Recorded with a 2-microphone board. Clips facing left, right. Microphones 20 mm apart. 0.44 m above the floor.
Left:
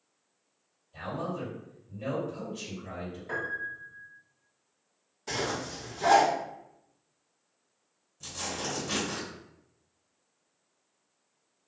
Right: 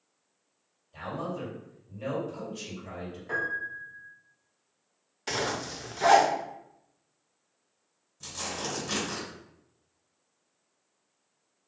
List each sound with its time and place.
0.9 s a man speaking: 20° right (ahead or behind), 1.8 m
3.3 s a piano: 5° right (ahead or behind), 1.3 m
5.3 s a zipper: 50° right (ahead or behind), 0.5 m
8.2 s tearing paper: 15° right (ahead or behind), 1.6 m